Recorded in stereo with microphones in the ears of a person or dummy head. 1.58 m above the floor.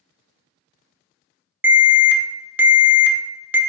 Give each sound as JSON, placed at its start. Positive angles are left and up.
{"t": 1.6, "sound": "an alarm", "side_deg": -15, "distance_m": 0.5}